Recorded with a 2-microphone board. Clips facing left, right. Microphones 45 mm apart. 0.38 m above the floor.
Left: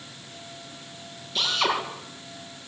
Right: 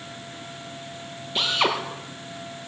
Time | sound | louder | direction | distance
1.4 | a drill | right 2 dB | 25° right (ahead or behind) | 6.5 m